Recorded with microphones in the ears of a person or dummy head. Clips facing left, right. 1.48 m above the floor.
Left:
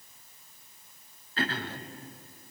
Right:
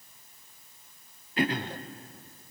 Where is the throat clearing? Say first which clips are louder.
Right 5 dB; 10° right (ahead or behind), 0.6 m.